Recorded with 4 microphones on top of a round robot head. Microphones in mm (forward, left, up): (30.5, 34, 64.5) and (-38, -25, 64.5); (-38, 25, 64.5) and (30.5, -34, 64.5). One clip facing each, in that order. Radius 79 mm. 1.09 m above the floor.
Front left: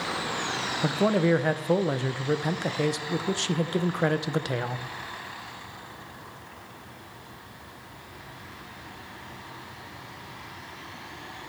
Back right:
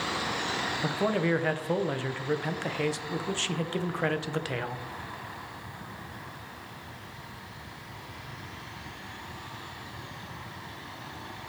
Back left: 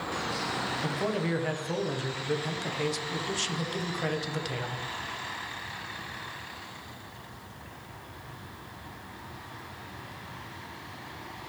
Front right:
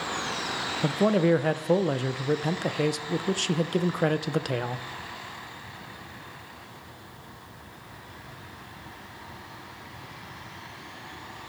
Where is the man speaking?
25° right, 0.8 m.